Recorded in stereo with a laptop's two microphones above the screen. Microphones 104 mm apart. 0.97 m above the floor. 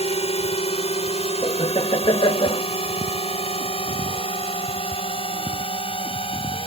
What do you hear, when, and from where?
0.0 s a drone: 70° left (ahead or behind); by 6.7 s 60° left (ahead or behind)
1.4 s laughter: 55° left (ahead or behind)